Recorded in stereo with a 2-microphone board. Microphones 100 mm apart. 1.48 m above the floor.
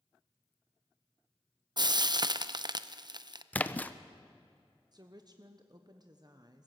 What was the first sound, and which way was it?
Frying, 45° right (ahead or behind).